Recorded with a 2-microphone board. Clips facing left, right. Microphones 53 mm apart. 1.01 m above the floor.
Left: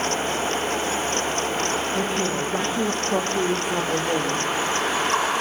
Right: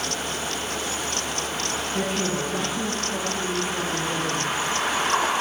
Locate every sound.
1.9 s a woman speaking: 10° left (ahead or behind), 1.4 m; by 4.4 s 55° left (ahead or behind), 1.7 m